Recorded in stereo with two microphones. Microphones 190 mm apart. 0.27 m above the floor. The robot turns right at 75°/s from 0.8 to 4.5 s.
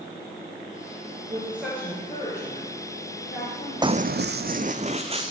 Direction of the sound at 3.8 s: 20° right (ahead or behind).